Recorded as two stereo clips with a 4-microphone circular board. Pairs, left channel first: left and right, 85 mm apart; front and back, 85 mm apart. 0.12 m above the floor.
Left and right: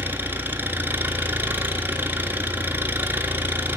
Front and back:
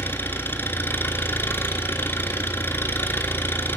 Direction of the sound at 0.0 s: 45° right.